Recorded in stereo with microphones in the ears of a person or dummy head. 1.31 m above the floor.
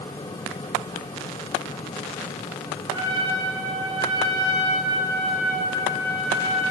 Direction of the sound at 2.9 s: 20° right (ahead or behind).